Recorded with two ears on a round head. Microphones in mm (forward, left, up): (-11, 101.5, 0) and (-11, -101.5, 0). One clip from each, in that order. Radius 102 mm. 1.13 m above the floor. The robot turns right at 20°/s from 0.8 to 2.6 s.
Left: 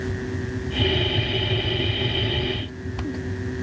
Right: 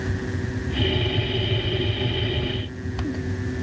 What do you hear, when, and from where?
Only background noise.